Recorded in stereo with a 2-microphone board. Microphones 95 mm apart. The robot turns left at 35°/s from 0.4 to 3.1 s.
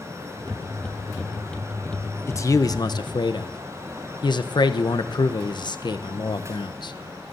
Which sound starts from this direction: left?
A man speaking, at 2.3 s.